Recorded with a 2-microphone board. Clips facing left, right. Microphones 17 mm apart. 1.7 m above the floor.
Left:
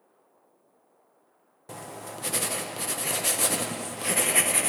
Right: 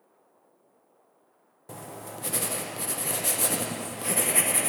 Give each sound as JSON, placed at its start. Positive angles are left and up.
{"t": 1.7, "sound": "writing", "side_deg": 15, "distance_m": 0.6}